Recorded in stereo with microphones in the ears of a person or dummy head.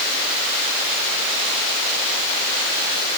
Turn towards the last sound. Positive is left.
No sound to turn to.